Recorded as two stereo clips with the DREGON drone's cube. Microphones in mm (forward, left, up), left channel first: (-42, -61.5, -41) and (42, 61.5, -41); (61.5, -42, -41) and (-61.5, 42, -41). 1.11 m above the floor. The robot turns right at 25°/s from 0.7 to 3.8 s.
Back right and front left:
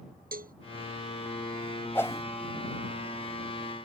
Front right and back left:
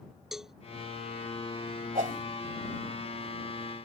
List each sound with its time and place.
0.3 s a cowbell: 60° left
1.9 s a whoosh: 160° left; by 2.3 s 170° left